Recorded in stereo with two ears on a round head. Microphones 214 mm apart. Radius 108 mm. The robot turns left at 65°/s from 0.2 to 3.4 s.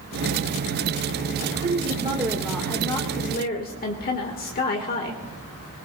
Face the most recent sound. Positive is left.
turn(degrees=120)